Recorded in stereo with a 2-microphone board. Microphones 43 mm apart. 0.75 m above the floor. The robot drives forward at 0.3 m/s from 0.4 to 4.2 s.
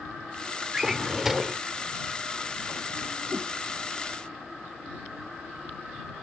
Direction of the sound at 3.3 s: 65° right (ahead or behind).